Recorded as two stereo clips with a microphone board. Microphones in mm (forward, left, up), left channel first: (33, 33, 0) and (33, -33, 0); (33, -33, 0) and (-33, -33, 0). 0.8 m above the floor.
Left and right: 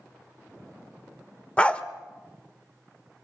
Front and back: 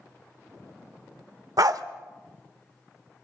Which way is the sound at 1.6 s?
160° left.